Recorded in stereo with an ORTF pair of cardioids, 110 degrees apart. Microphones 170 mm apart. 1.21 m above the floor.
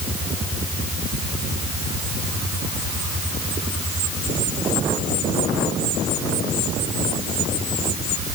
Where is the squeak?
No squeak in this recording.